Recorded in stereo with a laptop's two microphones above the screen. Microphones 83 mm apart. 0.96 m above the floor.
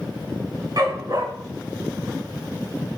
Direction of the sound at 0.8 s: 50° right (ahead or behind).